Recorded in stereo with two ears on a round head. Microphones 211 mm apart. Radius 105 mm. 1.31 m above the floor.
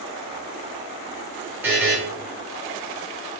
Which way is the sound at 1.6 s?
10° right (ahead or behind).